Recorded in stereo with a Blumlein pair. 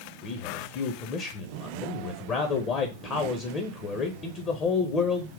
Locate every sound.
0.2 s a man speaking: 30° left, 0.9 m